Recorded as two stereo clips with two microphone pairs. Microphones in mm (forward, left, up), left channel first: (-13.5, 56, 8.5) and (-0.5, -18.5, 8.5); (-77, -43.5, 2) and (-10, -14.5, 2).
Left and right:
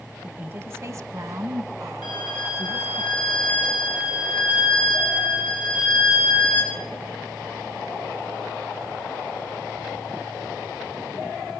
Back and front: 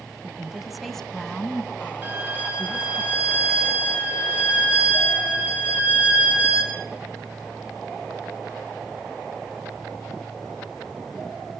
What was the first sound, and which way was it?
A woman speaking, 35° right.